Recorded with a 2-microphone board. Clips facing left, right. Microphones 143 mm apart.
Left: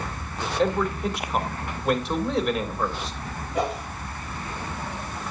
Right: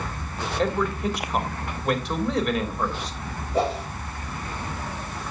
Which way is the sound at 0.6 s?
Centre (ahead or behind).